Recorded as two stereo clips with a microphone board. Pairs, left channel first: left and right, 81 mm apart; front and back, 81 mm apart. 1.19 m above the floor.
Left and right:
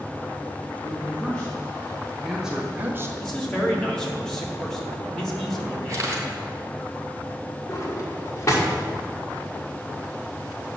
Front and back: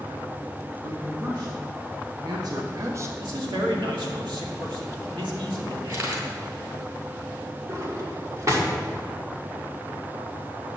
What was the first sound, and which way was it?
A man speaking, 155° left.